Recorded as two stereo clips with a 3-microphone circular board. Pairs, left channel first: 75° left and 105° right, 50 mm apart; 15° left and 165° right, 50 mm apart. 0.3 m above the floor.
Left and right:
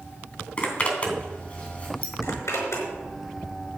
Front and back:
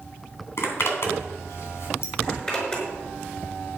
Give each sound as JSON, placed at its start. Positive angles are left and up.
{"t": 0.6, "sound": "a zipper", "azimuth_deg": 20, "distance_m": 3.0}
{"t": 2.2, "sound": "a zipper", "azimuth_deg": 80, "distance_m": 5.0}